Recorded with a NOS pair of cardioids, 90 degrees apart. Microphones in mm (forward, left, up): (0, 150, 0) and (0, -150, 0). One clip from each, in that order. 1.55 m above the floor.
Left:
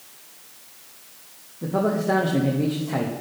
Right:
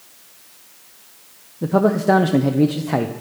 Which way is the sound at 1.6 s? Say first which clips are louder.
Right 6 dB; 35° right.